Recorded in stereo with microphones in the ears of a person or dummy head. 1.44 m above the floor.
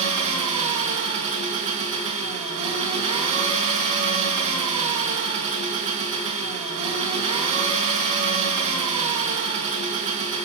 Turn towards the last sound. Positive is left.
turn(degrees=-30)  # may be behind; listen again after turning